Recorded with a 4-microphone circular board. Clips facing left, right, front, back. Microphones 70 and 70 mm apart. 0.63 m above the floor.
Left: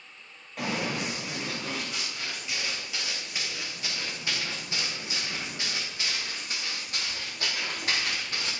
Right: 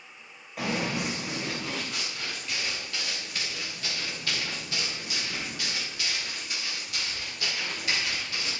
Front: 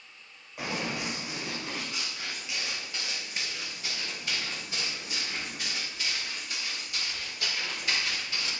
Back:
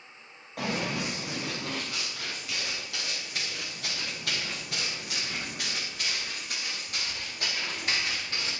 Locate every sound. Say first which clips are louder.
0.6 s running footsteps: right 1 dB, back 2 dB; straight behind, 7 m; by 8.5 s 135° left, 6 m